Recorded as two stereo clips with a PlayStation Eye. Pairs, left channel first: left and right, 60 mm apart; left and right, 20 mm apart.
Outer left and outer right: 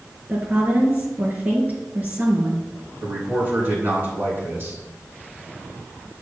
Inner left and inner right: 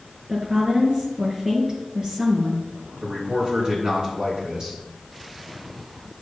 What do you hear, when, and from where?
0.3 s a woman speaking: 30° right (ahead or behind), 2.5 m
3.0 s a man speaking: 40° right (ahead or behind), 3 m